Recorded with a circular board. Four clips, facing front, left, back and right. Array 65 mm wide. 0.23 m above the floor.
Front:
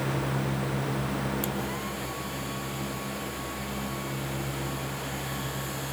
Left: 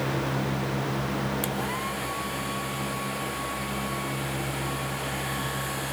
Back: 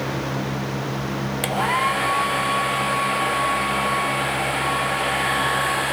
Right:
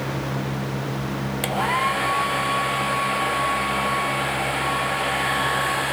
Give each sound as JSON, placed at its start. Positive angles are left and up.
{"t": 1.4, "sound": "a hair dryer", "azimuth_deg": -145}